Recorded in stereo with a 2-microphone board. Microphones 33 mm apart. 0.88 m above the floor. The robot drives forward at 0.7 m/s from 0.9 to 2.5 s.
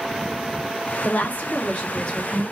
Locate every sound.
1.0 s a woman speaking: 55° left (ahead or behind), 0.7 m; by 2.4 s 25° left (ahead or behind), 1.4 m